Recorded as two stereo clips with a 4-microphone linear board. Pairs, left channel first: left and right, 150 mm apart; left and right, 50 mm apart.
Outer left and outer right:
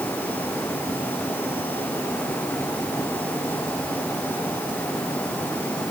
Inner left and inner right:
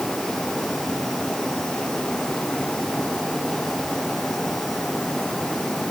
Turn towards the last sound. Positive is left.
No sound to turn to.